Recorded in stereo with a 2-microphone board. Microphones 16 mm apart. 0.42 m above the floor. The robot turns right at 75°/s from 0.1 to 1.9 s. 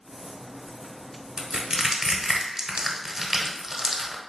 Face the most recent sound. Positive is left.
turn(degrees=-35)  # may be behind; listen again after turning